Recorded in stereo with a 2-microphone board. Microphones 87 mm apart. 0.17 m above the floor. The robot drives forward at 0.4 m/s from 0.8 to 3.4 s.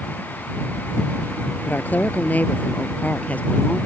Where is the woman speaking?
20° left (ahead or behind); by 3.9 s 15° left (ahead or behind).